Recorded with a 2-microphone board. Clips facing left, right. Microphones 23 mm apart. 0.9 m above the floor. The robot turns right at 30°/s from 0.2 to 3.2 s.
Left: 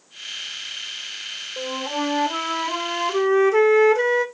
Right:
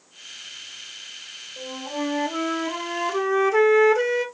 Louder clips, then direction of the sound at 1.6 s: Left 3 dB; 130° left.